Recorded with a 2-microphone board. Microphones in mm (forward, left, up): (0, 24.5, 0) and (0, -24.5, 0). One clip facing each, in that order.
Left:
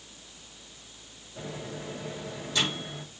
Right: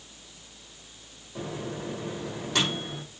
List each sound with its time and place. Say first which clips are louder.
1.4 s a microwave: right 4 dB; 70° right (ahead or behind), 3.5 m